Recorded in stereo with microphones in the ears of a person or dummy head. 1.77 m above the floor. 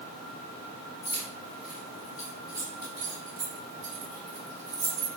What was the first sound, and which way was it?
Keys jangling, 40° left (ahead or behind).